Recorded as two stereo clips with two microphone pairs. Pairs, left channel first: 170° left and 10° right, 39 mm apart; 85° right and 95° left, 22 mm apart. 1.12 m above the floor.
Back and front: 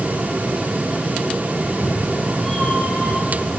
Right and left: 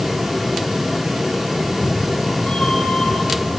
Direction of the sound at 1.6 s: 115° right.